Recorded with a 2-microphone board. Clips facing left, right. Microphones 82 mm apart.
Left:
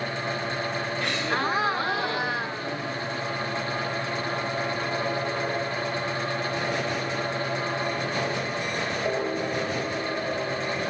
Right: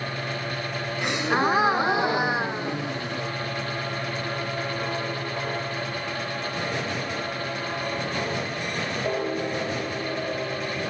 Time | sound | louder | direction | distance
1.0 | a gasp | right 6 dB | 20° right (ahead or behind) | ?